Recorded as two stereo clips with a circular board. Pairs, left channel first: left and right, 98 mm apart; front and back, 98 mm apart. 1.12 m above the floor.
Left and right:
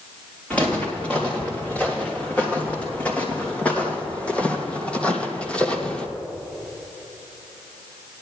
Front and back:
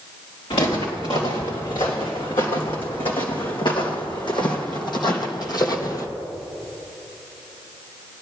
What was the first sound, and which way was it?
Footsteps, 15° left.